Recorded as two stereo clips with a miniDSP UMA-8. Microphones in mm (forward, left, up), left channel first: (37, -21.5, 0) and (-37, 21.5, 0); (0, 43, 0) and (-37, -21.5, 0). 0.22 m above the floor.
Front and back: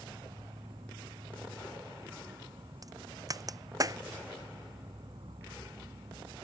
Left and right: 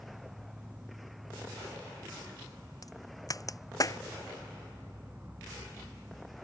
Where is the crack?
100° left.